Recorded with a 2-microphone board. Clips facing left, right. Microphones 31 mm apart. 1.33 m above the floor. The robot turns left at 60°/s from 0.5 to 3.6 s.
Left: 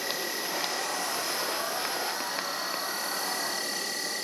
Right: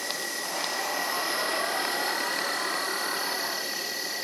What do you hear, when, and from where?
0.0 s an insect: 20° left, 1.3 m; by 4.2 s 170° right, 1.3 m